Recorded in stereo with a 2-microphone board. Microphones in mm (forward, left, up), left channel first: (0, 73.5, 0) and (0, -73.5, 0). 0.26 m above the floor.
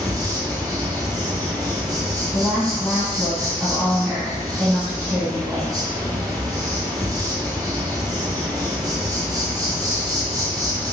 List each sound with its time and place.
0.0 s an insect: 25° right (ahead or behind), 0.8 m
2.3 s a woman speaking: 10° right (ahead or behind), 1.7 m